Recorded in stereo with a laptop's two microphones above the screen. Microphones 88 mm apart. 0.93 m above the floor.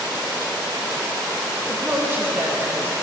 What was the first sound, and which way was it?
A woman speaking, 25° right (ahead or behind).